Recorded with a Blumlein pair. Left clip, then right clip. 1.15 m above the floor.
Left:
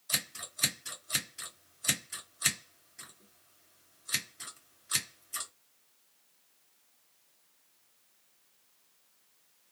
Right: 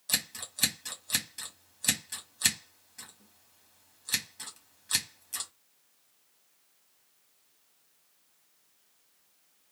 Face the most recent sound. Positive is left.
turn(degrees=-60)